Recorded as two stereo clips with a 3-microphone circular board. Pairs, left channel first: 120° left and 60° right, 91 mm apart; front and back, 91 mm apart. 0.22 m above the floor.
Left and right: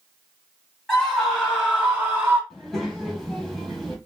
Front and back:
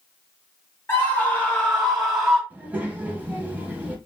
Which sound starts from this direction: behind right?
A child speaking, at 2.5 s.